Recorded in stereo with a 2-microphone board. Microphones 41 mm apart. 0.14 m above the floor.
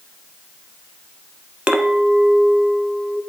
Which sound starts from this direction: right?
A clink, at 1.7 s.